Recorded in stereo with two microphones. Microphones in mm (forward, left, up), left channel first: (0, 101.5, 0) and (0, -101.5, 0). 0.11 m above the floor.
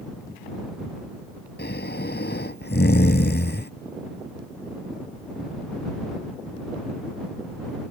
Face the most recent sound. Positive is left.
turn(degrees=55)  # may be behind; listen again after turning